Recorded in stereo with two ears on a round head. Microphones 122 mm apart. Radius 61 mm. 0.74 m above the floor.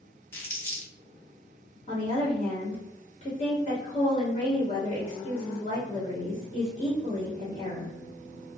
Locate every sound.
0.3 s crumpling: 15° left (ahead or behind), 0.8 m
1.9 s a woman speaking: 45° left (ahead or behind), 1.4 m